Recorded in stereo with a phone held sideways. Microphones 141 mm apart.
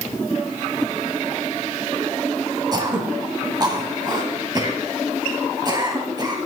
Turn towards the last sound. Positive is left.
turn(degrees=-30)  # may be behind; listen again after turning